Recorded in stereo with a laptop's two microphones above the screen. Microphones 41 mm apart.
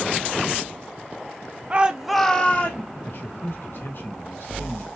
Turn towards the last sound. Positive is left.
turn(degrees=60)  # may be behind; listen again after turning